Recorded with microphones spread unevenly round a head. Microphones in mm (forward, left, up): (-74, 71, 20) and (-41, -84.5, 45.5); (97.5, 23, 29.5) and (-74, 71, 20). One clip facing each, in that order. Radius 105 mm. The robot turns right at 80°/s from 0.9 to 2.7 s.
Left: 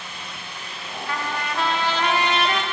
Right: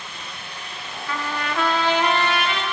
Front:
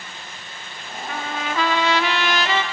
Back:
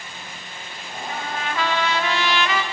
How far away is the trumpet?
About 0.8 m.